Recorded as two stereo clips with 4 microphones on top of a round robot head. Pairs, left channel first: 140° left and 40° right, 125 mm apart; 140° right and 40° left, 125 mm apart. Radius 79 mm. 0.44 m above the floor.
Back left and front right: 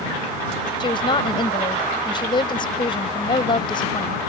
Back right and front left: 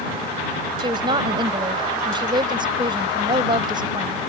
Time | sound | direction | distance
0.8 | a woman speaking | 90° left | ?